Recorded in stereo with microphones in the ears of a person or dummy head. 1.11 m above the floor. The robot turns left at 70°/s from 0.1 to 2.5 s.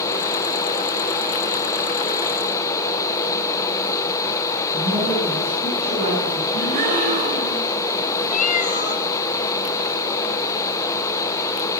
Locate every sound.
4.7 s a woman speaking: 45° right (ahead or behind), 9.5 m
6.5 s a gasp: 40° right (ahead or behind), 4.5 m
8.3 s a cat meowing: 35° left (ahead or behind), 1.7 m